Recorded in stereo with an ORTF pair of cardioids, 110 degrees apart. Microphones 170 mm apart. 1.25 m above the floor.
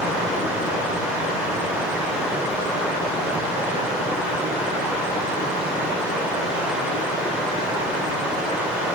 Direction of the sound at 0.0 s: 5° right.